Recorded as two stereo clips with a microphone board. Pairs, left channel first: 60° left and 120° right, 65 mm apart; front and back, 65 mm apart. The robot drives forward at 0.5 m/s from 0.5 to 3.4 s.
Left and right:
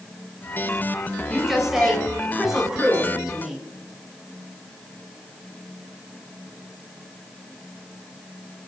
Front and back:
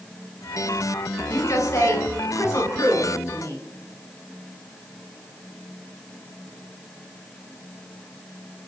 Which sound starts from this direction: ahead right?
A woman speaking, at 1.3 s.